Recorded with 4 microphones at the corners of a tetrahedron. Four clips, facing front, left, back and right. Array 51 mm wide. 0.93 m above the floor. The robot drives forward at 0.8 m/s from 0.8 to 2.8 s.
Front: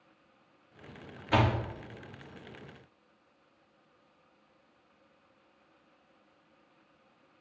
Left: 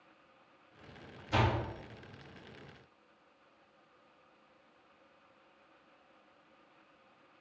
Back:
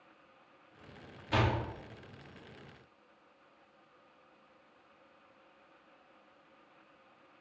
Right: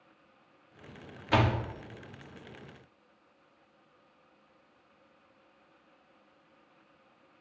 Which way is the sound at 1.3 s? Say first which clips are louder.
Right 4 dB, front 4 dB; 65° right.